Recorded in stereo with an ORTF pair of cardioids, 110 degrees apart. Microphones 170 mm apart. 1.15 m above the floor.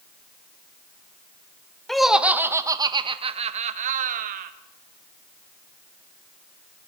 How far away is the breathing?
I don't hear breathing.